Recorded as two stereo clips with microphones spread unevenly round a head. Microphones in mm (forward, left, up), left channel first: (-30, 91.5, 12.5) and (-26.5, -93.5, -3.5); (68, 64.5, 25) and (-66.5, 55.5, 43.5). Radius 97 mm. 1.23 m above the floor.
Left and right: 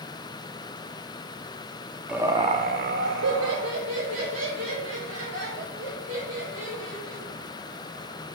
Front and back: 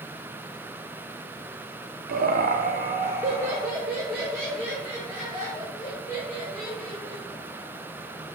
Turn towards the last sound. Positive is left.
turn(degrees=-75)